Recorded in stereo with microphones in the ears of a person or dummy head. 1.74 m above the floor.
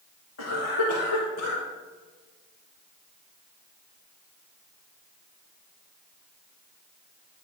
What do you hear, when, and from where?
0.4 s a cough: 75° left (ahead or behind), 0.7 m